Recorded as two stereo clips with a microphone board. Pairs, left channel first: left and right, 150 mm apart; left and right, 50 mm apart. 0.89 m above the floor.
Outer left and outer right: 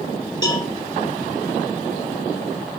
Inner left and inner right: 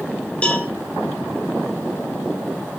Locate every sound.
0.4 s a cowbell: 25° left (ahead or behind), 2 m